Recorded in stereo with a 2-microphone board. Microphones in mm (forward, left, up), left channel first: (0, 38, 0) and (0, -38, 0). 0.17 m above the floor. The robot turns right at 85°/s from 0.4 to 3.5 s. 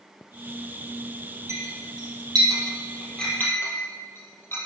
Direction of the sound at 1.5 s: 40° right (ahead or behind).